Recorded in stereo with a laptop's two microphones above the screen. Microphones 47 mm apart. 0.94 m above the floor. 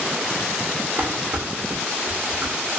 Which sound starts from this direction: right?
Dishes clattering, at 1.0 s.